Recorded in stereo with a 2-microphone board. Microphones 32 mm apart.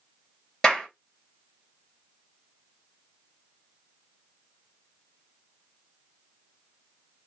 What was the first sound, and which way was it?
A clap, 20° left (ahead or behind).